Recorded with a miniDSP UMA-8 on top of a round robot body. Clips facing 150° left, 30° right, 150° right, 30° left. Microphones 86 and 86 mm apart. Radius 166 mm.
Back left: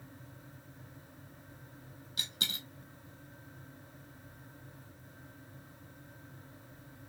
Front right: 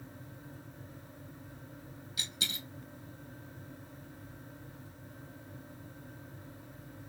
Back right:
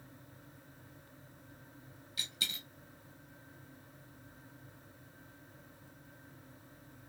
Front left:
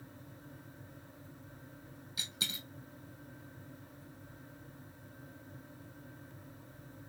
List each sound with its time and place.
2.2 s a dropped coin: 105° left, 2.0 m